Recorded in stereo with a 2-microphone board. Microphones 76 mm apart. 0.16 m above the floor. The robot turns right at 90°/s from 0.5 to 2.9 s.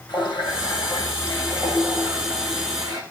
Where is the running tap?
80° left, 7.5 m; by 3.0 s 65° right, 7.5 m.